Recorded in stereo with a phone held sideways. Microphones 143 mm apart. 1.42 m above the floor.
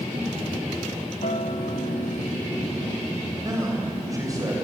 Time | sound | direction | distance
1.2 | a guitar | 60° left (ahead or behind) | 1.4 m
3.4 | a man speaking | 25° right (ahead or behind) | 7 m